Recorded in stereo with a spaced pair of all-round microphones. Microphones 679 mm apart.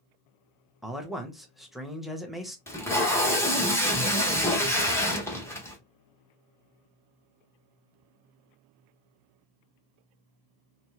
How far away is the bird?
I don't hear a bird.